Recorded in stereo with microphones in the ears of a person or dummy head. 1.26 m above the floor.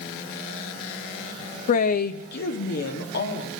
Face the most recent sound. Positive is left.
turn(degrees=65)  # may be behind; listen again after turning